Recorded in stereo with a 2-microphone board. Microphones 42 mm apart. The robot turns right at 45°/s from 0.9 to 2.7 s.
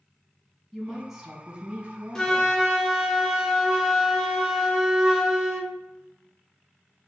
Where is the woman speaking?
170° left, 1.5 m; by 2.5 s 115° right, 1.5 m.